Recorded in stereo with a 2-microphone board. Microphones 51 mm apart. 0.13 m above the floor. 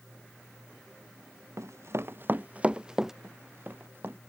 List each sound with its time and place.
1.6 s running footsteps: 75° right (ahead or behind); by 3.1 s 10° right (ahead or behind)
3.2 s running footsteps: 45° right (ahead or behind)